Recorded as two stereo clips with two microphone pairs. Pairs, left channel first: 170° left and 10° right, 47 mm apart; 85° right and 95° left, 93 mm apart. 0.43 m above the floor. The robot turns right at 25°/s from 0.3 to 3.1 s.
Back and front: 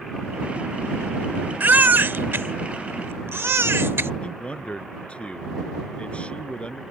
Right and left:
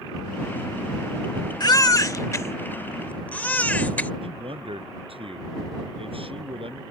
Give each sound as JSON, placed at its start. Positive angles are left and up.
{"t": 1.6, "sound": "a baby crying", "azimuth_deg": -50}
{"t": 4.2, "sound": "a man speaking", "azimuth_deg": 105}